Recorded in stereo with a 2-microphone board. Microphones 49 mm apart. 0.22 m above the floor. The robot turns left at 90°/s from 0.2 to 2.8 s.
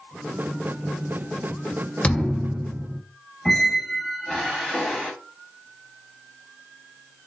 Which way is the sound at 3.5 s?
Centre (ahead or behind).